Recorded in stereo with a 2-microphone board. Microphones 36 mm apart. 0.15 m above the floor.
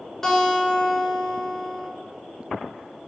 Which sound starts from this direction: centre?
A guitar, at 0.2 s.